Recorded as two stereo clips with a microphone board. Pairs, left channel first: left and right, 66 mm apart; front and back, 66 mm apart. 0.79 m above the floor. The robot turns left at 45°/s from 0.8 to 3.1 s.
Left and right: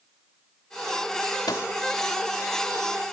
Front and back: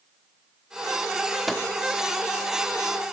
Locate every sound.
1.5 s a microwave: 95° left, 1.2 m; by 1.7 s 85° left, 1.2 m